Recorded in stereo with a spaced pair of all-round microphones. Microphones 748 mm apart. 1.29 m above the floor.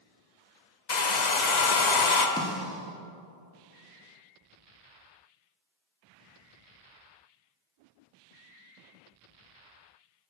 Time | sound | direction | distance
0.9 | a hair dryer | 65° left (ahead or behind) | 1.0 m
2.4 | a snare drum | 5° left (ahead or behind) | 1.5 m